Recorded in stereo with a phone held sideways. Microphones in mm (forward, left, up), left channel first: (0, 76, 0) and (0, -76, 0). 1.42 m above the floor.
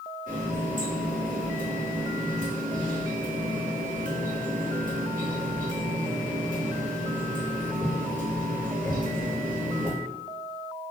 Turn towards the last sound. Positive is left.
turn(degrees=-60)  # may be behind; listen again after turning